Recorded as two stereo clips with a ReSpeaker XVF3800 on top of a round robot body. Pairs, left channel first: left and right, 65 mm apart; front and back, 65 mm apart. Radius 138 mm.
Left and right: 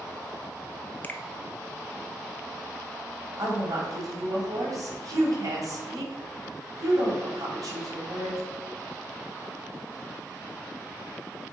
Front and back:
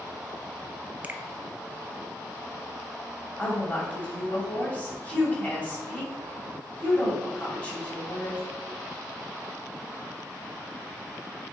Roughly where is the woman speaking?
Ahead right.